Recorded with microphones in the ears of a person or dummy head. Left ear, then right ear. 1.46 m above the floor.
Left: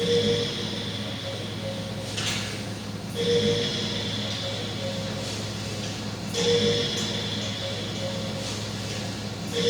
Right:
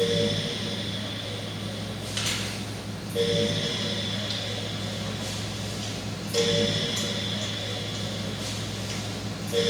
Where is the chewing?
50° right (ahead or behind), 1.5 m.